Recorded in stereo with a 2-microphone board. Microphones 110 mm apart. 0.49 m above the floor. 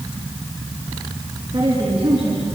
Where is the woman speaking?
60° right (ahead or behind), 5 m.